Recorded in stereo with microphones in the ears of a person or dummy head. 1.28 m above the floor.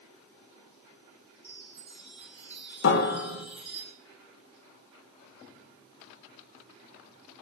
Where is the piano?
60° left (ahead or behind), 1.2 m.